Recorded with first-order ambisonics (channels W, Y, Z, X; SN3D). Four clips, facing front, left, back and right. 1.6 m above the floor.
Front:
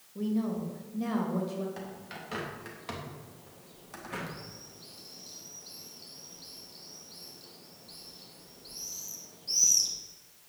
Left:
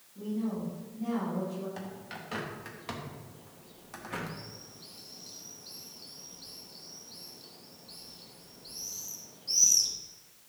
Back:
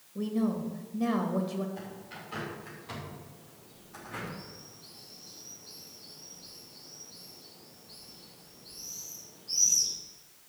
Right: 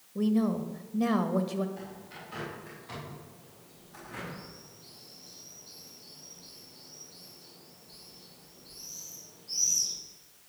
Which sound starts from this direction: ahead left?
A bird, at 1.8 s.